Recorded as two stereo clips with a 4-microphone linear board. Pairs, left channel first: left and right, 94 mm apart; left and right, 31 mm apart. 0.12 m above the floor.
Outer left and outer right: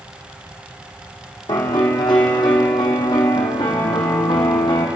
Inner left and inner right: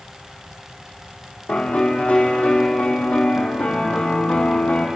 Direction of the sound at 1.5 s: 50° left (ahead or behind).